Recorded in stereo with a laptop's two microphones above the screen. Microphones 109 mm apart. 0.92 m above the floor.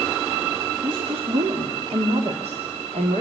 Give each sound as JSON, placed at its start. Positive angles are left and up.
{"t": 0.8, "sound": "a woman speaking", "side_deg": -50, "distance_m": 2.5}